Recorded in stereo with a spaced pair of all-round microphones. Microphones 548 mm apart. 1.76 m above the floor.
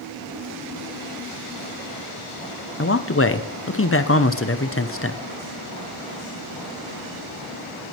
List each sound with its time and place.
2.8 s a man speaking: 25° left (ahead or behind), 0.6 m